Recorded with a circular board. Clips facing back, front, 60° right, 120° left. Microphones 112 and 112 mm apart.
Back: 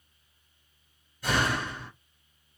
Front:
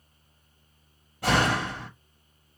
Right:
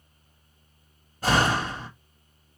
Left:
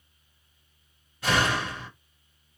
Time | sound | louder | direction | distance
1.2 | a door slam | front 4 dB, right 3 dB | 10° right | 1.9 m